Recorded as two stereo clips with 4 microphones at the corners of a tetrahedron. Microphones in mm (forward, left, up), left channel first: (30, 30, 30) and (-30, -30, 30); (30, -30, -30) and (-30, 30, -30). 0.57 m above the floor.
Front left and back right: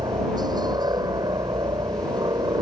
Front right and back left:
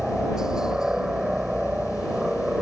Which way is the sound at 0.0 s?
145° right.